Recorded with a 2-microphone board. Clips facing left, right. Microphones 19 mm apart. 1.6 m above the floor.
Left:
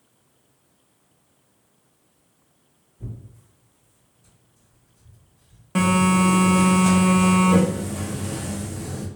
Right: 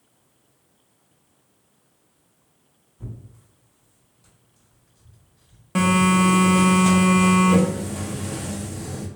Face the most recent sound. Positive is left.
turn(degrees=0)  # may be behind; listen again after turning